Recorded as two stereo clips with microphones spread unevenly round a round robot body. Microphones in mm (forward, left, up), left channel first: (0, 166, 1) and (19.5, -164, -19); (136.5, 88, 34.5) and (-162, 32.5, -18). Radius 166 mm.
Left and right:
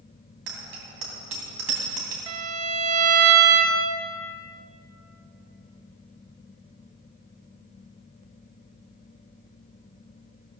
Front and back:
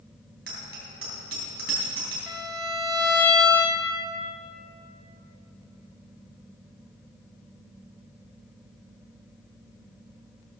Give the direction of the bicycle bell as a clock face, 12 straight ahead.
4 o'clock.